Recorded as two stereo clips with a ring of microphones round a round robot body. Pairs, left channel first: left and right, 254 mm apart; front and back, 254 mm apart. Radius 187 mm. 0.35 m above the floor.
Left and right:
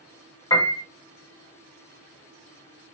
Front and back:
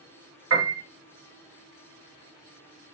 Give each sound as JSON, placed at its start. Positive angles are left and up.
{"t": 0.5, "sound": "a piano", "azimuth_deg": 160, "distance_m": 1.5}